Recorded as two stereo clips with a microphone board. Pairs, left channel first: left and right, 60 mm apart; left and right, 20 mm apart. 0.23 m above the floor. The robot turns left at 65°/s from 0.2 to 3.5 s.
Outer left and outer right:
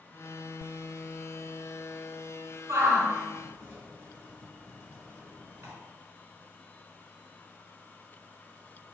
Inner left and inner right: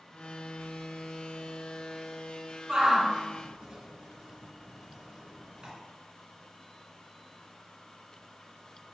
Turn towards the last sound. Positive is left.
turn(degrees=-40)  # may be behind; listen again after turning